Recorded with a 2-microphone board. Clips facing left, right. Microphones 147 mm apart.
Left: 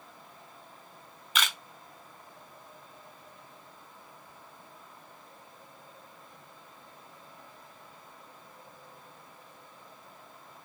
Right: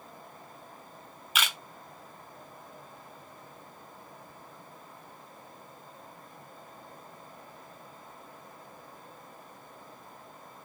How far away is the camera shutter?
About 0.9 m.